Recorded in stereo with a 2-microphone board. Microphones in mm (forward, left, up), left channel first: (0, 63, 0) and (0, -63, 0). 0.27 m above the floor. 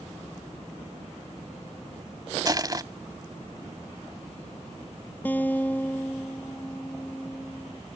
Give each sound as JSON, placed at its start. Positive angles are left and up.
{"t": 2.5, "sound": "crushing", "side_deg": -30}
{"t": 5.2, "sound": "a guitar", "side_deg": 15}